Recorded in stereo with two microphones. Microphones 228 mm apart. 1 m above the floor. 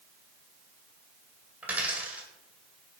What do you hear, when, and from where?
1.6 s a dropped coin: 5° right (ahead or behind), 1.9 m